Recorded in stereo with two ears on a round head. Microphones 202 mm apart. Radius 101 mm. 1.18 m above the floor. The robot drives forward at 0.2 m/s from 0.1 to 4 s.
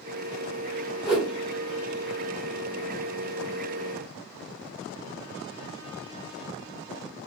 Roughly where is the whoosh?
Centre.